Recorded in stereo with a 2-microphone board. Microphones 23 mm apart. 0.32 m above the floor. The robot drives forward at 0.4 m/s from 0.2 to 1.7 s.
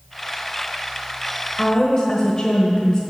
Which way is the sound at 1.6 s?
35° left (ahead or behind).